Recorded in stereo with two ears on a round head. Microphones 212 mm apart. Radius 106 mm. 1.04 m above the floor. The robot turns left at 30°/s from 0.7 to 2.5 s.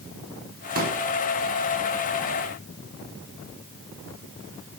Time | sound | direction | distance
0.8 | a pop | 40° right (ahead or behind) | 2.5 m